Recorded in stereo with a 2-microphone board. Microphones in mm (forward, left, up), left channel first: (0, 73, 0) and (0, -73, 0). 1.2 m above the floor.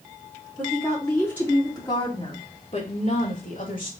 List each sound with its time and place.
0.6 s a woman speaking: centre (ahead or behind), 3 m; by 3.9 s 70° left (ahead or behind), 2.5 m